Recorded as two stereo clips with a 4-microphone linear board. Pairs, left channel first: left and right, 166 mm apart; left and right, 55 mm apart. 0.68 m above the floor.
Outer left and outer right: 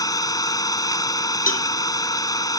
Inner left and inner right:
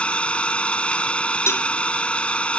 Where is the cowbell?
55° left (ahead or behind).